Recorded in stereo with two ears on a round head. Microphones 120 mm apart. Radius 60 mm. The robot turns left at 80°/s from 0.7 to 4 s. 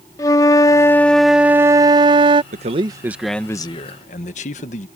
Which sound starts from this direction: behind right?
A man speaking, at 2.5 s.